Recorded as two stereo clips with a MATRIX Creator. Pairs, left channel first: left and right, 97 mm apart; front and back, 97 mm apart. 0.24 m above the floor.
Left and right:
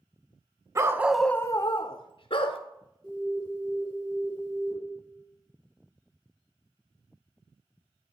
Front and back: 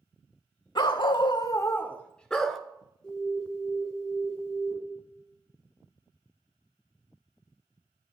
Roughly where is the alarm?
Right.